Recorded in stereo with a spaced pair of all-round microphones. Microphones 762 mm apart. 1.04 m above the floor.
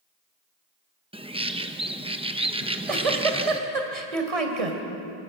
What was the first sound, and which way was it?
A bird, 10° right (ahead or behind).